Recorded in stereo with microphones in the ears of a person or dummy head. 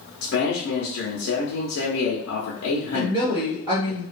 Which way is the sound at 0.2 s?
80° left.